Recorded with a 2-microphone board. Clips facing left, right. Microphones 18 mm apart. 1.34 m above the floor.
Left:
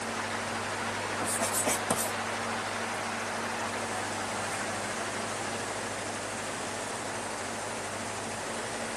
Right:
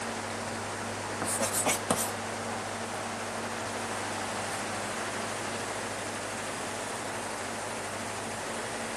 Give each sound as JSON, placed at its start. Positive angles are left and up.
{"t": 1.2, "sound": "writing", "side_deg": -30, "distance_m": 1.0}